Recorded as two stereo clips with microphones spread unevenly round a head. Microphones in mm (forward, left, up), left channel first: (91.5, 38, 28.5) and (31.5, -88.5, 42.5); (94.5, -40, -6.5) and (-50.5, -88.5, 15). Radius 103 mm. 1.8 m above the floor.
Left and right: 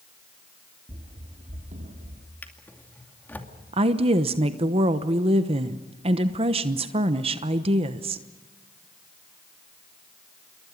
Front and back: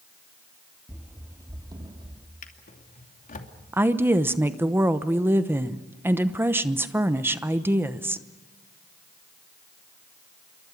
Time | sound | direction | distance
0.9 | running footsteps | 90° right | 2.5 m
2.4 | a drawer | 15° right | 2.5 m
3.7 | a woman speaking | 100° right | 1.0 m